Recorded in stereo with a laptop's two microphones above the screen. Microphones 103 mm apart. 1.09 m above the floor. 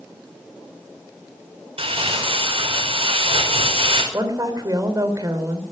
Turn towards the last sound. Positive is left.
turn(degrees=-40)  # may be behind; listen again after turning